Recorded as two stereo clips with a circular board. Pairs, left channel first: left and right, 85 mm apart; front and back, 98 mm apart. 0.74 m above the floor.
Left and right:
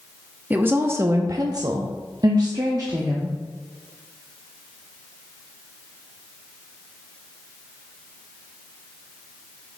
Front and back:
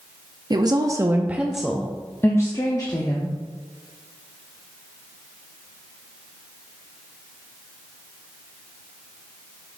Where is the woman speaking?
155° right, 0.7 m; by 3.3 s 40° right, 1.2 m.